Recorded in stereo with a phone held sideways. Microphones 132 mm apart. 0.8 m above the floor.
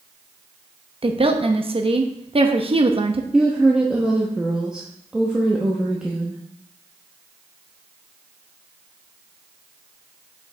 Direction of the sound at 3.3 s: 5° right (ahead or behind).